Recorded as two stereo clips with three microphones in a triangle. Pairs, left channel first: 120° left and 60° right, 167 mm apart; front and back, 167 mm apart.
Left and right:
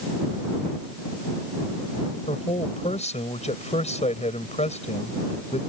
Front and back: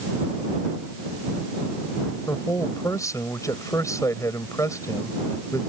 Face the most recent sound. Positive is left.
turn(degrees=70)